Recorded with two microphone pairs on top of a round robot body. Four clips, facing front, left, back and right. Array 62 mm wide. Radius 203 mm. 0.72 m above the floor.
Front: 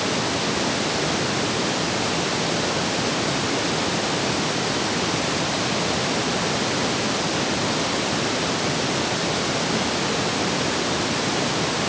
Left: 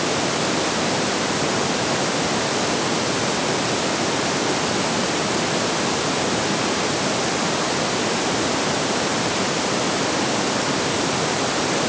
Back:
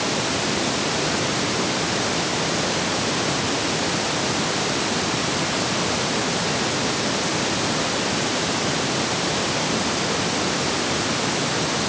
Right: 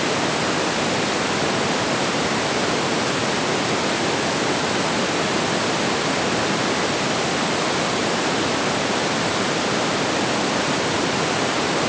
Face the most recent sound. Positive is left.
No sound to turn to.